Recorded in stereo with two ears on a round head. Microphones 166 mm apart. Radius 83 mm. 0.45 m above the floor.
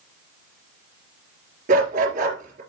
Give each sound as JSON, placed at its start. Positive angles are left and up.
{"t": 1.7, "sound": "a dog barking", "side_deg": -40, "distance_m": 3.0}